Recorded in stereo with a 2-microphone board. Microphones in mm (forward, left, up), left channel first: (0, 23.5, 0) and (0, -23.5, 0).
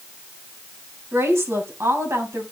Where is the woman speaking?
70° right (ahead or behind), 3 m.